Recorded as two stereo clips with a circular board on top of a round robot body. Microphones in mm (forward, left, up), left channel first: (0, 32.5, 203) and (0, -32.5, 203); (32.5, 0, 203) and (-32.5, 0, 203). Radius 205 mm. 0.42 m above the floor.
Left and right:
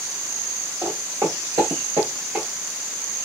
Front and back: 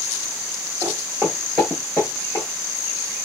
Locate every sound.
0.8 s footsteps: 140° right, 0.8 m; by 2.5 s 30° right, 0.6 m